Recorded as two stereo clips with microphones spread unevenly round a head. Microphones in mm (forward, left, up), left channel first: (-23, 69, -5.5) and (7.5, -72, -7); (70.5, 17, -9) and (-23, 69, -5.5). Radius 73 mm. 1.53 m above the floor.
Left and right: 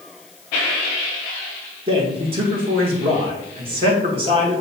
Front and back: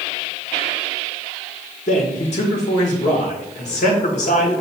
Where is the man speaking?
20° right, 1.3 m.